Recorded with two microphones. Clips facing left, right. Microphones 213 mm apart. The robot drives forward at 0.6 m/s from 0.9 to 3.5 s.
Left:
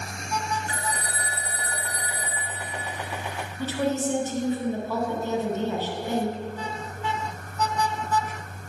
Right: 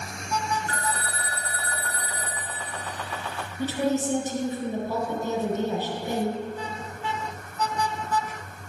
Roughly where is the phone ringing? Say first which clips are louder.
Right 1 dB; centre.